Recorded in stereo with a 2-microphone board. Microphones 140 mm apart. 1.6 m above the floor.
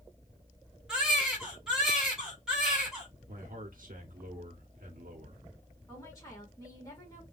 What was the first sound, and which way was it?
A baby crying, 5° right (ahead or behind).